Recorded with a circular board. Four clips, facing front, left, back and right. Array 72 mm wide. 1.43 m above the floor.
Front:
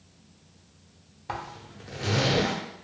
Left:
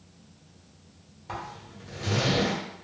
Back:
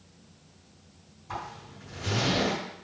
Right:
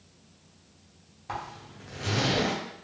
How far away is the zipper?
About 0.7 m.